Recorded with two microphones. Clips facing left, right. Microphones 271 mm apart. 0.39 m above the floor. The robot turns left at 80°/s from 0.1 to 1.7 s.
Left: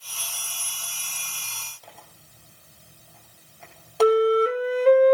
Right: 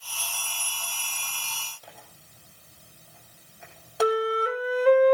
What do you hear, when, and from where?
1.8 s tearing paper: 15° right (ahead or behind), 5.5 m
4.0 s a flute: 30° left (ahead or behind), 0.7 m